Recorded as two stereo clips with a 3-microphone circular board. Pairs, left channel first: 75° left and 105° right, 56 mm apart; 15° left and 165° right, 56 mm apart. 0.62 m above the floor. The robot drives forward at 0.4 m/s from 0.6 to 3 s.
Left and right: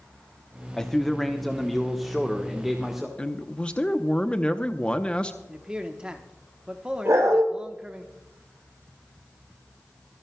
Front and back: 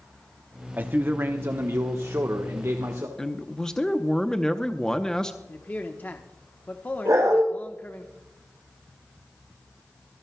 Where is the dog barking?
140° right, 6.5 m.